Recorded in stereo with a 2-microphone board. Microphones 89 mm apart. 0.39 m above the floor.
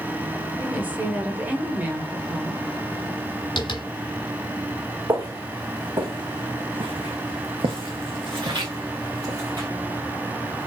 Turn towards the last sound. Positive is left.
turn(degrees=-45)  # may be behind; listen again after turning